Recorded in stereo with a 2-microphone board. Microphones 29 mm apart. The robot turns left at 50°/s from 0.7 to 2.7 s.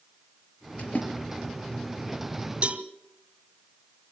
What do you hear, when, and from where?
0.8 s a splash: 45° left (ahead or behind), 5.5 m; by 1.1 s 60° left (ahead or behind), 5.5 m
2.6 s a cowbell: 40° right (ahead or behind), 1.7 m